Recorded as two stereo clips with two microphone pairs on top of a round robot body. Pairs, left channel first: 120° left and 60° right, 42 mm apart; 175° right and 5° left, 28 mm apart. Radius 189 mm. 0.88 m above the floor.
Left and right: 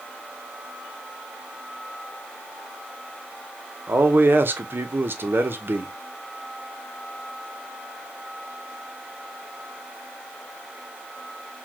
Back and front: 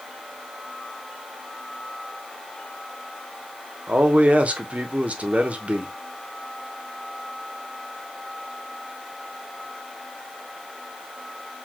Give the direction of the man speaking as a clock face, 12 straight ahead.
1 o'clock.